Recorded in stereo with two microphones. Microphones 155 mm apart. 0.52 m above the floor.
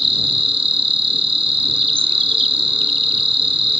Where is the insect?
35° right (ahead or behind).